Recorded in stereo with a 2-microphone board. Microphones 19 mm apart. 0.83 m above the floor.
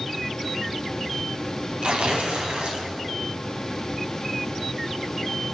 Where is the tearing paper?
85° right, 4 m.